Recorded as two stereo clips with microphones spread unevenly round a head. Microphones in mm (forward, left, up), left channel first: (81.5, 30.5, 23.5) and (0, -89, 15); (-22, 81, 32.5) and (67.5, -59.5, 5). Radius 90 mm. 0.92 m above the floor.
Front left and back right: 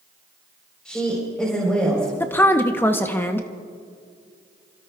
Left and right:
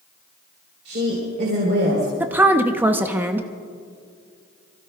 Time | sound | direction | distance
0.8 | a woman speaking | 30° right | 4 m
2.2 | a woman speaking | 10° right | 0.8 m